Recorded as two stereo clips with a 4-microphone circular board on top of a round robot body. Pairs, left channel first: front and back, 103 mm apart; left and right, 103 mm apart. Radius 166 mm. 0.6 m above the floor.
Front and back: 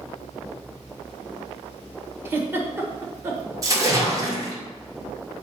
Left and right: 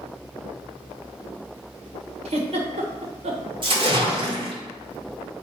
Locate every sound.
2.2 s a giggle: 110° right, 1.3 m
3.6 s a splash: 125° right, 2 m